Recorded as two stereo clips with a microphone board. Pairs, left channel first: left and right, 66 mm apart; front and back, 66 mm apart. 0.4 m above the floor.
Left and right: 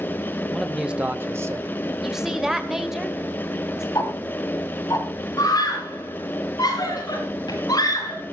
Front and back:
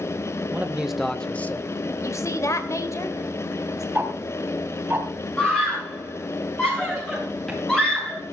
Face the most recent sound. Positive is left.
turn(degrees=80)